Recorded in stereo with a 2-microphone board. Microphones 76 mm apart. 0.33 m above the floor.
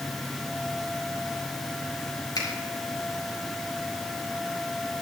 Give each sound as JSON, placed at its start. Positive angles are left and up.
{"t": 2.4, "sound": "a finger snap", "side_deg": 70, "distance_m": 4.0}